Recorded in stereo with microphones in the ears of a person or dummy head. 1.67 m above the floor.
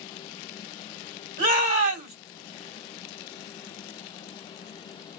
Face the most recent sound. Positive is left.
turn(degrees=-45)  # may be behind; listen again after turning